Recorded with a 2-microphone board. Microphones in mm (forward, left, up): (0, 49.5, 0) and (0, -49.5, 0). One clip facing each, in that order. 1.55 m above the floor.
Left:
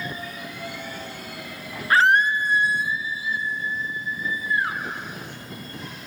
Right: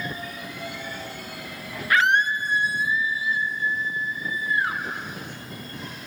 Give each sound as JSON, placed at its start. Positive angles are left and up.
{"t": 1.9, "sound": "a scream", "side_deg": 35, "distance_m": 0.6}